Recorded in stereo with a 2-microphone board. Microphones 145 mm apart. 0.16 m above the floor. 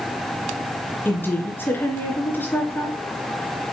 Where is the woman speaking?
15° left (ahead or behind), 2.5 m.